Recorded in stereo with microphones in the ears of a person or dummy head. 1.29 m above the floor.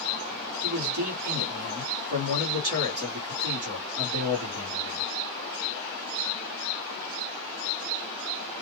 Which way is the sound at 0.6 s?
60° right (ahead or behind).